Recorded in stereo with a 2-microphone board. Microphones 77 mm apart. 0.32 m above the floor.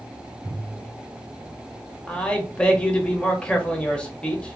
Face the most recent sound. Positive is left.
turn(degrees=15)  # may be behind; listen again after turning